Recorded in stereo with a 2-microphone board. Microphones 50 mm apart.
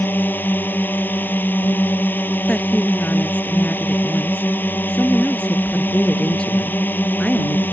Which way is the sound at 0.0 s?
40° left (ahead or behind).